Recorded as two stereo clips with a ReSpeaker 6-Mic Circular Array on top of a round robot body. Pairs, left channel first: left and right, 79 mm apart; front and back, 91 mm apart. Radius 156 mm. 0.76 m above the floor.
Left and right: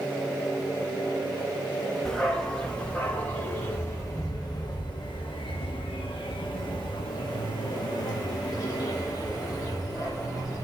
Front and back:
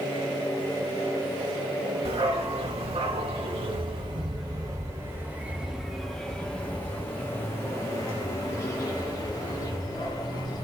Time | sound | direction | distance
2.0 | a dog barking | 170° left | 3.5 m